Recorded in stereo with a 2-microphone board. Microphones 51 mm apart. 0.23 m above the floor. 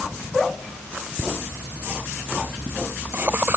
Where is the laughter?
20° right (ahead or behind); by 3.6 s 40° right (ahead or behind).